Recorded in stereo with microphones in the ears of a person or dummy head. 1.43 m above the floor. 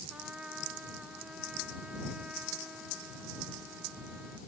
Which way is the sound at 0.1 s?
5° right (ahead or behind).